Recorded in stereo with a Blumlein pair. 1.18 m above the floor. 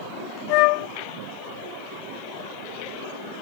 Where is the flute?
45° left.